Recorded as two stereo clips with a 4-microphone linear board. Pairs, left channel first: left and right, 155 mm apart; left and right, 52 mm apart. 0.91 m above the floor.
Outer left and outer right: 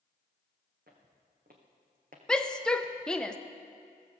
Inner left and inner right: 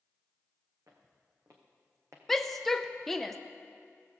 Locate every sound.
0.9 s footsteps: 70° right (ahead or behind), 3 m; by 2.2 s 60° right (ahead or behind), 1.9 m
2.3 s a shout: 5° left (ahead or behind), 0.8 m